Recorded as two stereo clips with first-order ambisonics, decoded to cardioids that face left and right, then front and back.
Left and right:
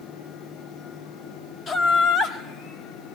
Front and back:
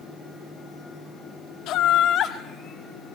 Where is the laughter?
25° left, 0.9 m; by 3.2 s 70° left, 1.2 m.